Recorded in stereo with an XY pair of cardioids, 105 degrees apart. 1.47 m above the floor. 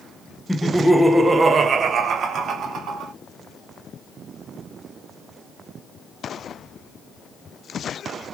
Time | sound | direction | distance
0.5 | laughter | straight ahead | 0.9 m